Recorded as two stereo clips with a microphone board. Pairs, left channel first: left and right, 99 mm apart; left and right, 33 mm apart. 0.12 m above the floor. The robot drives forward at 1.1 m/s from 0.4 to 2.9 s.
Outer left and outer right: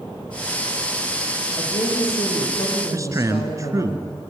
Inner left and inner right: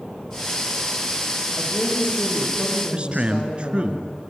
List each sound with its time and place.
1.6 s a woman speaking: 60° left (ahead or behind), 6.5 m; by 3.9 s 70° left (ahead or behind), 6 m
2.9 s a man speaking: 35° right (ahead or behind), 1.6 m